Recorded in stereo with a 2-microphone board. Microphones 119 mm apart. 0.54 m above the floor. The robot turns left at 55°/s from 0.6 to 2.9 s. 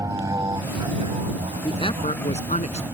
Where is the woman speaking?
135° left; by 2.8 s 70° left.